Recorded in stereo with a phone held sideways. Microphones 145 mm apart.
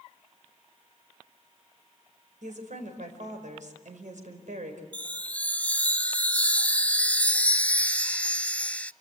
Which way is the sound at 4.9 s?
10° left (ahead or behind).